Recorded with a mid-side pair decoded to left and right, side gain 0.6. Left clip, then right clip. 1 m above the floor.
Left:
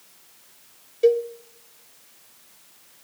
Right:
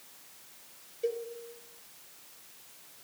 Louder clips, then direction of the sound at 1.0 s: Left 15 dB; 70° left.